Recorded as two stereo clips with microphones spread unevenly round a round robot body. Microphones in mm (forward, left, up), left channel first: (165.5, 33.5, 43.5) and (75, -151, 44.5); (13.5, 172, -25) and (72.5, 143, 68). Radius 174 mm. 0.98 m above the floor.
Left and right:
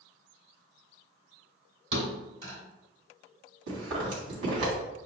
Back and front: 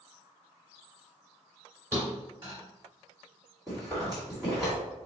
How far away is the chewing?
About 1.7 m.